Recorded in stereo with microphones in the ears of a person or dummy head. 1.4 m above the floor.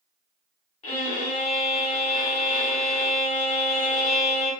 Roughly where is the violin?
Left.